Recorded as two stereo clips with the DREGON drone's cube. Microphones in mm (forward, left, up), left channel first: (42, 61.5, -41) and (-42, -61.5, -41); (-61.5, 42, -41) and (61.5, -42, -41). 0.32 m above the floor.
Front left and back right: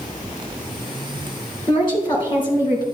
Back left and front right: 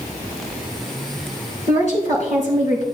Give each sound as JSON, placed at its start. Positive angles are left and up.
{"t": 1.7, "sound": "a woman speaking", "azimuth_deg": 110, "distance_m": 4.0}